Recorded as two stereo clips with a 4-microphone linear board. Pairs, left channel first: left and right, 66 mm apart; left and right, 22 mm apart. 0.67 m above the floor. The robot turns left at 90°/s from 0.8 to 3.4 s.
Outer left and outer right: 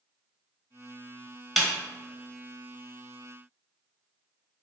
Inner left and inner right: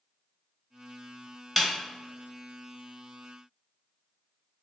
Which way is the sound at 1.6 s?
Centre (ahead or behind).